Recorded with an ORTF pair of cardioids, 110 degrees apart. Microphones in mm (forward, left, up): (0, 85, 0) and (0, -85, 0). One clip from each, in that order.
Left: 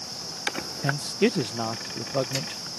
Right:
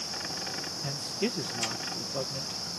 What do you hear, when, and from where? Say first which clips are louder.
0.8 s a man speaking: left 10 dB; 45° left